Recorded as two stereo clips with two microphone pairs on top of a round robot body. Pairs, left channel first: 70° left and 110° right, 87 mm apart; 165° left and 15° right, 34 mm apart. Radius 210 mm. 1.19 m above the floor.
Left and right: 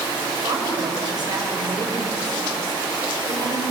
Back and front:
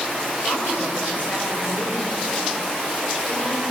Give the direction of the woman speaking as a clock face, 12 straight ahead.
5 o'clock.